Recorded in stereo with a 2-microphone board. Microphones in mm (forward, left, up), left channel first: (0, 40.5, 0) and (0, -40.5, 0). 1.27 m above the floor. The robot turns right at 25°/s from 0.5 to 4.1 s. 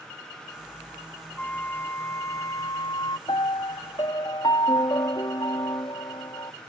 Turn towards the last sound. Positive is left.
turn(degrees=65)  # may be behind; listen again after turning